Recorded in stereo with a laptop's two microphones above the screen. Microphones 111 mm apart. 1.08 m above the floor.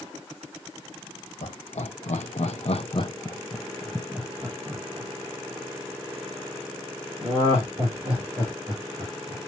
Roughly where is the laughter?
Left.